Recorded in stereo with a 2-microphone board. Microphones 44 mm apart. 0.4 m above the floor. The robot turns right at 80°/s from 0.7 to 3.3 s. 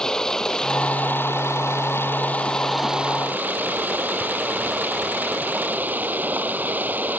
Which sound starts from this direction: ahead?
Running water, at 0.0 s.